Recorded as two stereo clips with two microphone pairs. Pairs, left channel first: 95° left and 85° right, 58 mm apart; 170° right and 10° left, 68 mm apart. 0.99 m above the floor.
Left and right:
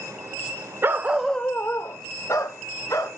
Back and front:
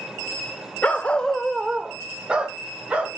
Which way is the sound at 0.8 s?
110° right.